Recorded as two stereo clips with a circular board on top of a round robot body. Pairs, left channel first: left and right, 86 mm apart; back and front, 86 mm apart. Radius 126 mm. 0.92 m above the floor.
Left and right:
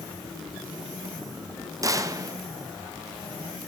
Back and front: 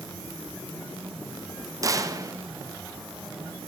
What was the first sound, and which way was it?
A gunshot, 45° right.